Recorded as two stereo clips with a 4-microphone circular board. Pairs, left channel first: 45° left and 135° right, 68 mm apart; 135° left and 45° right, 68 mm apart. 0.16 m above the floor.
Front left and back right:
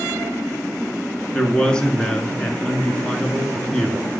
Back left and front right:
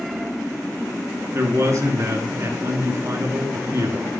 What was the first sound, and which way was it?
A man speaking, 30° right.